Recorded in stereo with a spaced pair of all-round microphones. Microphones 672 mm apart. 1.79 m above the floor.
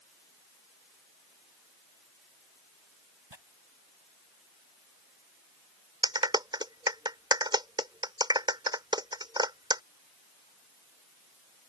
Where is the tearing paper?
40° right (ahead or behind).